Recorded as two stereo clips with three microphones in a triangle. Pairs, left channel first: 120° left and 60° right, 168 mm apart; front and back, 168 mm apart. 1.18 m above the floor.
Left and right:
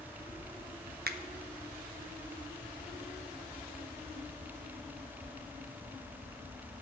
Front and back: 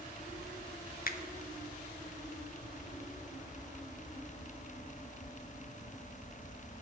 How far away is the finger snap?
About 0.6 m.